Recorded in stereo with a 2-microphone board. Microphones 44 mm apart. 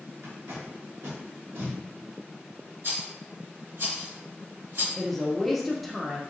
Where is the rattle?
65° right (ahead or behind), 2.0 m.